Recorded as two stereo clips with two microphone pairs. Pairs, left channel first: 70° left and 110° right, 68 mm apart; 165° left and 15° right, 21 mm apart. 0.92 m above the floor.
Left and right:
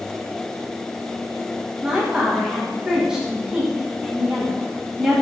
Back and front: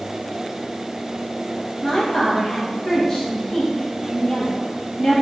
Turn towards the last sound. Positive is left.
turn(degrees=180)